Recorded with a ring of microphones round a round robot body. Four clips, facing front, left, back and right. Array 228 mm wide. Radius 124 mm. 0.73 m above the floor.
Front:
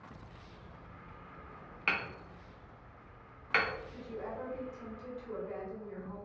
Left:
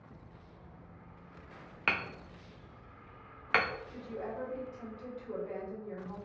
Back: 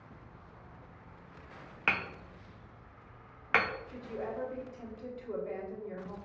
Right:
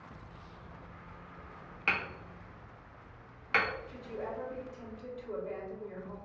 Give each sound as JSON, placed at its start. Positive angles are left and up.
{"t": 1.9, "sound": "hammering", "azimuth_deg": 145, "distance_m": 0.8}
{"t": 3.9, "sound": "a woman speaking", "azimuth_deg": 165, "distance_m": 2.5}